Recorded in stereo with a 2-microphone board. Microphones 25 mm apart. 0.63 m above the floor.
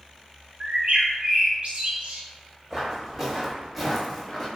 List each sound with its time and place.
0.6 s a bird: 55° right (ahead or behind), 0.7 m
2.7 s footsteps: 25° right (ahead or behind), 1.4 m; by 4.5 s 20° left (ahead or behind), 0.9 m